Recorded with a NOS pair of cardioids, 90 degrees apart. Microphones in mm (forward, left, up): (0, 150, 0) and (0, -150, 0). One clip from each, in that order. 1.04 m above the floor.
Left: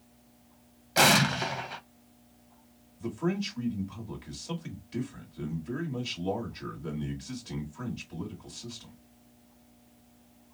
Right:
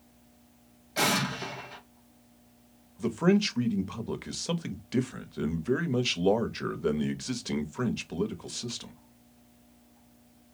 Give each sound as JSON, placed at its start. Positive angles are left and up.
{"t": 1.0, "sound": "an explosion", "azimuth_deg": 35, "distance_m": 0.6}
{"t": 3.0, "sound": "a man speaking", "azimuth_deg": -60, "distance_m": 0.9}